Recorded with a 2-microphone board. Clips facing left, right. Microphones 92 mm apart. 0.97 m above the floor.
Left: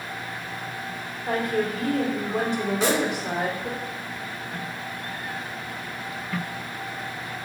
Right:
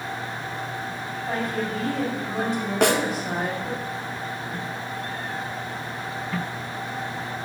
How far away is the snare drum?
About 0.7 m.